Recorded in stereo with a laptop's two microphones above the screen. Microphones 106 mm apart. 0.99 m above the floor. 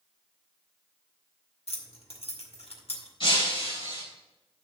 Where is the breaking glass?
65° left (ahead or behind), 3 m.